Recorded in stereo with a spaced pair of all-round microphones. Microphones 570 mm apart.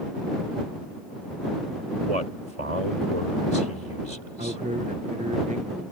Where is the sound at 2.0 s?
85° right.